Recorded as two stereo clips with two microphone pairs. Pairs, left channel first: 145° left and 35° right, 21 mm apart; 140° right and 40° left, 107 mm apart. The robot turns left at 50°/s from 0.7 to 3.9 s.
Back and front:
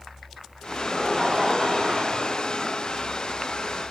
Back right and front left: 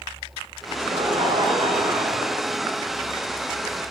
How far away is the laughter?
About 5 m.